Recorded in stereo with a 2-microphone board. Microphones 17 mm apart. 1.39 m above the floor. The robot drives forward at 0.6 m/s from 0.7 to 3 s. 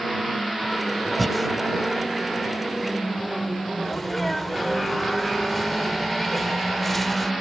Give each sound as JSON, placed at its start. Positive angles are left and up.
{"t": 1.2, "sound": "breathing", "side_deg": 0}
{"t": 3.8, "sound": "a sneeze", "side_deg": 10}